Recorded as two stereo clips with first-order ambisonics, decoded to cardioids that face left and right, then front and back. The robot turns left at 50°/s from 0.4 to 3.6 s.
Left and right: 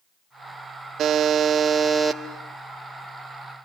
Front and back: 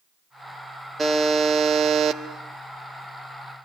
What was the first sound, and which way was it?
A buzzer, 110° right.